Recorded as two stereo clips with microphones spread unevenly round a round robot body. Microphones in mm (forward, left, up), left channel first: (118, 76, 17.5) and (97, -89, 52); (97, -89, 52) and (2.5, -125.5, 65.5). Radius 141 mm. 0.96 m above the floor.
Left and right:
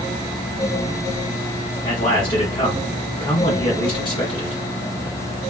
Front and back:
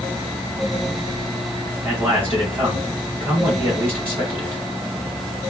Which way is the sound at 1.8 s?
125° left.